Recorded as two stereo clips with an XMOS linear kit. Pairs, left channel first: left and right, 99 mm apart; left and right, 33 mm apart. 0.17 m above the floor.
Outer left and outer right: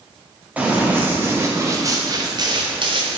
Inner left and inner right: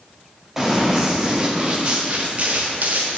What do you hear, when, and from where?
0.6 s running footsteps: 15° right (ahead or behind), 2.0 m; by 3.2 s 60° right (ahead or behind), 1.5 m